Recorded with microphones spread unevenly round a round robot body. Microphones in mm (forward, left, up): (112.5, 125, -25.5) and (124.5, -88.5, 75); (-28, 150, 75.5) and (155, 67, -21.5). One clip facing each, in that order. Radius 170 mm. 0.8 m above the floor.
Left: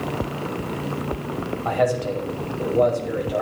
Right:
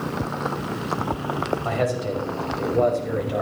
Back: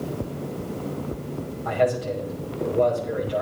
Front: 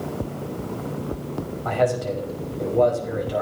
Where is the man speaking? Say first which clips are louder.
Left 6 dB, even; 25° right, 5.5 m.